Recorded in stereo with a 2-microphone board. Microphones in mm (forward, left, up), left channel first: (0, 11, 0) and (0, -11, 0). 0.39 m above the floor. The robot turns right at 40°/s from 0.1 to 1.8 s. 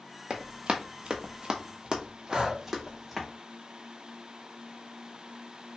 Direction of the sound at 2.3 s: 40° right (ahead or behind).